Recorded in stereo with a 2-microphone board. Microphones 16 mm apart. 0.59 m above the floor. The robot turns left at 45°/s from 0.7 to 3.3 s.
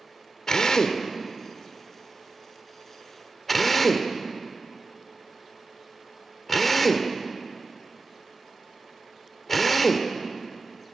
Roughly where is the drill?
Left.